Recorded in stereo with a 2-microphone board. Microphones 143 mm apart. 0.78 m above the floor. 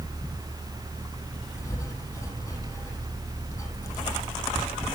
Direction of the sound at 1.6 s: 20° left (ahead or behind).